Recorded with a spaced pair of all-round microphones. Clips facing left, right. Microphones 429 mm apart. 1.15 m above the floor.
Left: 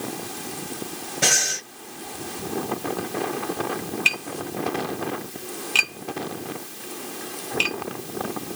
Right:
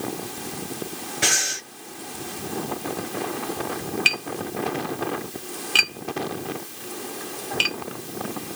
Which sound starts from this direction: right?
Tapping, at 4.0 s.